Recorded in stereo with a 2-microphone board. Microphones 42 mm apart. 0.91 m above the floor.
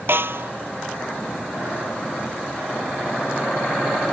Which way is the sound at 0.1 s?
60° right (ahead or behind).